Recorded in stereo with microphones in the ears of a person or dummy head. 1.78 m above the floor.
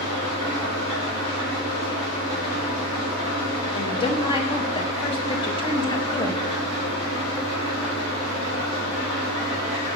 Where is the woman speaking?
30° left (ahead or behind), 0.7 m.